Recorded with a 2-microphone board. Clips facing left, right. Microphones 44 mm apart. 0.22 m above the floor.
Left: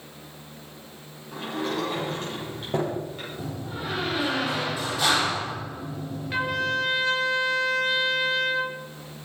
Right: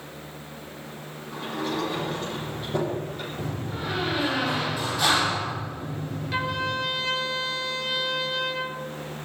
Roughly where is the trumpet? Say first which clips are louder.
Left 2 dB; centre.